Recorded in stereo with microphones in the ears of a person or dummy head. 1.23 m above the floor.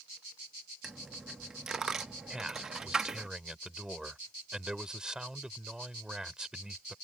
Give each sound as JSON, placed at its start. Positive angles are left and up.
{"t": 0.8, "sound": "a dropped coin", "side_deg": -10}
{"t": 2.3, "sound": "a man speaking", "side_deg": -5}